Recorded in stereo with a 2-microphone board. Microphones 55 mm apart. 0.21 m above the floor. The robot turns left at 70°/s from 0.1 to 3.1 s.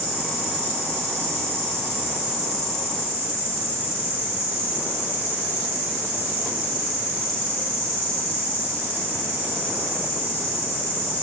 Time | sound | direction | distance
0.0 | an insect | straight ahead | 1.5 m